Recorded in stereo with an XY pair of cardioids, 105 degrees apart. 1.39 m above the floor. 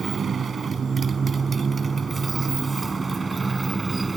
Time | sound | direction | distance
0.0 | a motorcycle | 45° right | ?